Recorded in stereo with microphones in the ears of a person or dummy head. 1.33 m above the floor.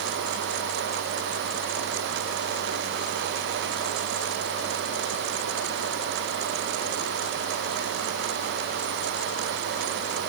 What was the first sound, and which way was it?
Only background noise.